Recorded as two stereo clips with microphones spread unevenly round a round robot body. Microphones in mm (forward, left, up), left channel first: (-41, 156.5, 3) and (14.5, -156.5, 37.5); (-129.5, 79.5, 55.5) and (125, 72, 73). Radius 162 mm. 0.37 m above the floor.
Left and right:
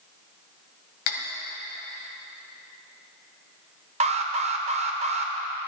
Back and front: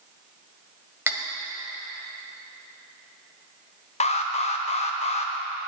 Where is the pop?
I don't hear a pop.